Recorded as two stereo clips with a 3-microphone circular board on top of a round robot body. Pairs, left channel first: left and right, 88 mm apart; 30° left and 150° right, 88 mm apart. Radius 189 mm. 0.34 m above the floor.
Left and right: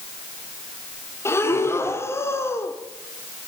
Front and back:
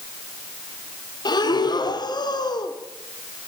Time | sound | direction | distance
1.2 | breathing | 40° left | 1.4 m